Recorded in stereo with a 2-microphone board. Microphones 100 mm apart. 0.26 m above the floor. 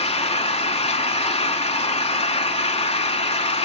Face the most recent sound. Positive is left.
turn(degrees=75)  # may be behind; listen again after turning